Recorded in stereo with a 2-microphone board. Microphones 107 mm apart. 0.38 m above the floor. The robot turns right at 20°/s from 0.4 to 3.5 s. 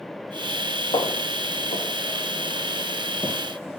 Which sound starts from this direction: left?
Footsteps, at 0.9 s.